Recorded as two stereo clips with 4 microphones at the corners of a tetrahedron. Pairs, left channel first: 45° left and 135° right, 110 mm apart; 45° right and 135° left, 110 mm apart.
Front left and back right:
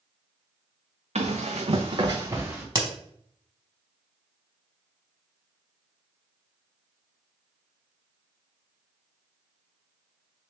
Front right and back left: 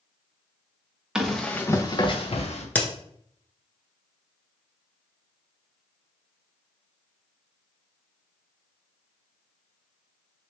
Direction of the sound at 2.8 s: 110° right.